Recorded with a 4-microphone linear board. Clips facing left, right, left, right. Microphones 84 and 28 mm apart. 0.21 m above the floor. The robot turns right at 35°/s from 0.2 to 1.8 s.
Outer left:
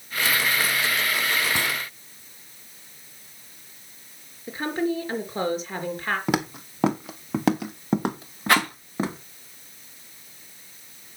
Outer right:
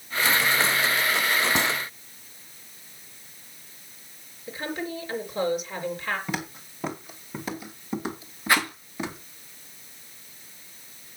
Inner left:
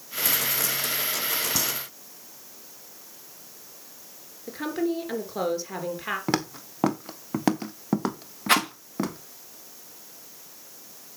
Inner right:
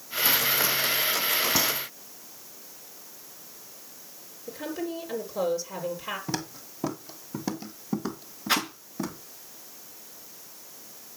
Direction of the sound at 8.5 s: 65° left (ahead or behind).